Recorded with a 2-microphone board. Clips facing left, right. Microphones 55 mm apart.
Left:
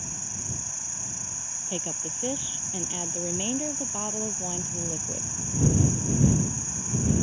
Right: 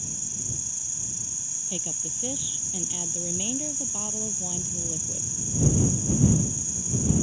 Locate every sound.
0.0 s an insect: 45° left (ahead or behind)
1.7 s a woman speaking: 20° left (ahead or behind)